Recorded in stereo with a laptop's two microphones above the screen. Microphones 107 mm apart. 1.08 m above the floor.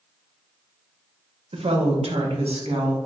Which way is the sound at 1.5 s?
80° right.